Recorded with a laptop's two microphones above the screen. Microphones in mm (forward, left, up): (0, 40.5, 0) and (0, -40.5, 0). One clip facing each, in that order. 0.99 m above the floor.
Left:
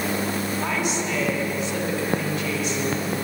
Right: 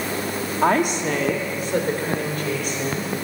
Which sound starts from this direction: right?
A woman speaking, at 0.6 s.